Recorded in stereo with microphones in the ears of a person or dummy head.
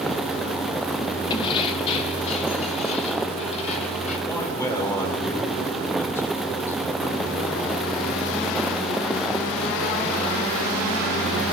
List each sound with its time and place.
1.3 s keys jangling: 25° left (ahead or behind), 1.5 m; by 4.2 s 40° left (ahead or behind), 5 m
4.3 s a man speaking: 20° left (ahead or behind), 7 m